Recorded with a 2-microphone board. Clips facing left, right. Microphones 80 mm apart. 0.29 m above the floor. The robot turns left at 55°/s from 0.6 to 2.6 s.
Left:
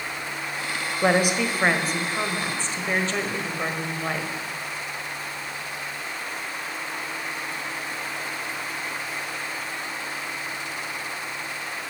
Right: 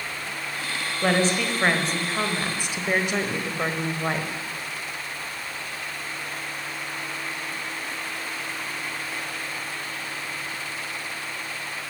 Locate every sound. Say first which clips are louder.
1.0 s a woman speaking: left 1 dB; 20° left (ahead or behind), 1.4 m; by 4.3 s 10° right (ahead or behind), 1.4 m